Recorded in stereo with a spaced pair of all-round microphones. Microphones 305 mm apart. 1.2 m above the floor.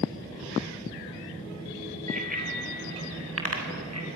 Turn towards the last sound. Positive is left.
turn(degrees=-60)  # may be behind; listen again after turning